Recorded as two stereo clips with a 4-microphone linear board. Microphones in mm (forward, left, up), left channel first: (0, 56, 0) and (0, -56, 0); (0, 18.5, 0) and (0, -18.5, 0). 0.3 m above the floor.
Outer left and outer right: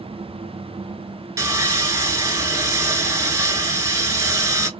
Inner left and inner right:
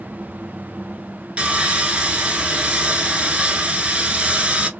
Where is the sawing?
30° right (ahead or behind), 0.7 m.